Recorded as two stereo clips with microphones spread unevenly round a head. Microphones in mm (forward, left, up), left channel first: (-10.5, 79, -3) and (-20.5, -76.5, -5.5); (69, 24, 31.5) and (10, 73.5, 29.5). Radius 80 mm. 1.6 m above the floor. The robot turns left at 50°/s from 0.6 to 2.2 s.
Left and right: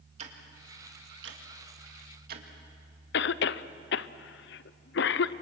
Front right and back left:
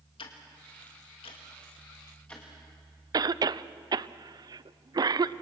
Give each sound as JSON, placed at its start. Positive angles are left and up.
{"t": 0.2, "sound": "ticking", "azimuth_deg": -40, "distance_m": 2.0}
{"t": 3.1, "sound": "a cough", "azimuth_deg": 105, "distance_m": 0.7}